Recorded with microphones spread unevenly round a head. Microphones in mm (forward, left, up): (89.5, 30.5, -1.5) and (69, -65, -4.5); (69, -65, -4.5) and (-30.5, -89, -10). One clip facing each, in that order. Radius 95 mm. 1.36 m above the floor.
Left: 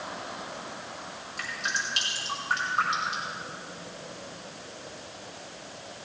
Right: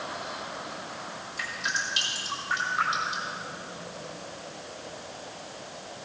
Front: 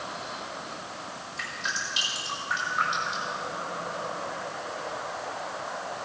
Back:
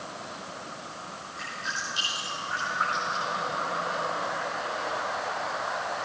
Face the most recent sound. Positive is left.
turn(degrees=45)